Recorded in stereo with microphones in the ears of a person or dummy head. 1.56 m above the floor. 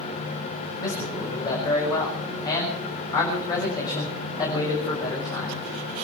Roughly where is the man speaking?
Left.